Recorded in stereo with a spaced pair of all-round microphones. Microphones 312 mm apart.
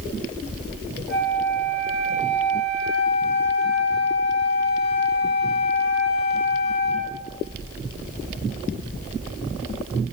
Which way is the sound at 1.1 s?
Centre (ahead or behind).